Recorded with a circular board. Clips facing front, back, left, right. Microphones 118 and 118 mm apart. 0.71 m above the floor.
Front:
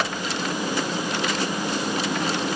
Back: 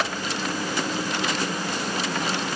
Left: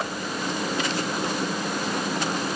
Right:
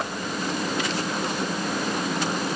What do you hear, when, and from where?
Only background noise.